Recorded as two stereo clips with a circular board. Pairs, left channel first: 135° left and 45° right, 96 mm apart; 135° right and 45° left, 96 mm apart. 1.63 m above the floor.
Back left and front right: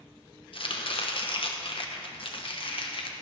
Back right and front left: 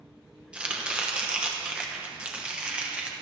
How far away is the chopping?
About 1.0 m.